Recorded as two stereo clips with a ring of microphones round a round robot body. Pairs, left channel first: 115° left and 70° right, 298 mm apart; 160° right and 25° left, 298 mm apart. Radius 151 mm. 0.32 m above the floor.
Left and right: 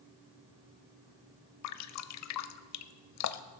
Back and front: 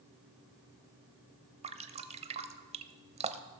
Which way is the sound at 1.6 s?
90° left.